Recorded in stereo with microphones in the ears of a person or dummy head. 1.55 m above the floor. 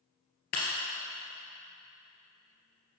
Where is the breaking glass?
40° left (ahead or behind), 2 m.